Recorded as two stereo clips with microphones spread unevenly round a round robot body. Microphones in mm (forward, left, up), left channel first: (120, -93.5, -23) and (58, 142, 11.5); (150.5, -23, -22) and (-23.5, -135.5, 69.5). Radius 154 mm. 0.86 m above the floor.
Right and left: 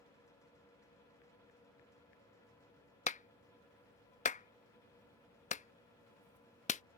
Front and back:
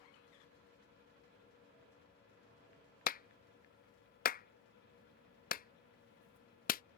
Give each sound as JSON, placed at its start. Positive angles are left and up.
{"t": 3.1, "sound": "a clap", "azimuth_deg": -15}